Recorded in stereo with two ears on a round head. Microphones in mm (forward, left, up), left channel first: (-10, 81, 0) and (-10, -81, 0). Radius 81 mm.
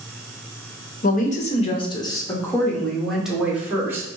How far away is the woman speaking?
About 1.0 m.